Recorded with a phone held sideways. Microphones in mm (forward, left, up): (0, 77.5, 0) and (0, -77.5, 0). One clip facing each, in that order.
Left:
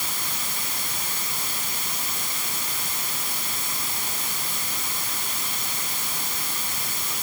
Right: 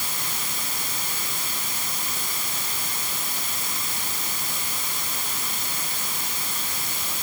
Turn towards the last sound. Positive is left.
No sound to turn to.